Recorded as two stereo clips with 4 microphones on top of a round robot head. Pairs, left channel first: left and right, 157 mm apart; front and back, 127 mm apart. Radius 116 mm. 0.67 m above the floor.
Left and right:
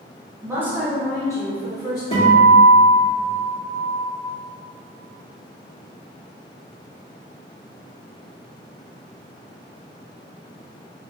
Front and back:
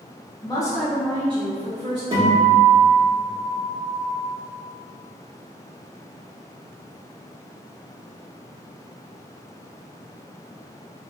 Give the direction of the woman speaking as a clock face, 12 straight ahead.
1 o'clock.